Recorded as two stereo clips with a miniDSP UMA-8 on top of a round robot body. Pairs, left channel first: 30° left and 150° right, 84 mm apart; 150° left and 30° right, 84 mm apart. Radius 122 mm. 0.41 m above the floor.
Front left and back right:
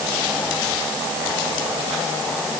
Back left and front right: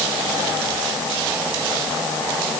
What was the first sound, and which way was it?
Only background noise.